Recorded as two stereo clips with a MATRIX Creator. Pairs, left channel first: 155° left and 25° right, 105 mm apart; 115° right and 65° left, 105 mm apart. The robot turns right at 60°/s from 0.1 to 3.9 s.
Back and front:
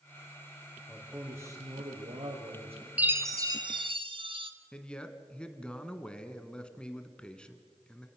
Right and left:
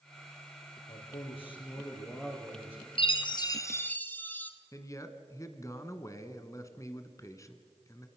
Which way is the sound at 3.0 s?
100° right.